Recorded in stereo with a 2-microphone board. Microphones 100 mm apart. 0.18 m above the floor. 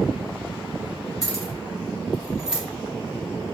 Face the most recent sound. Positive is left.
turn(degrees=-5)  # may be behind; listen again after turning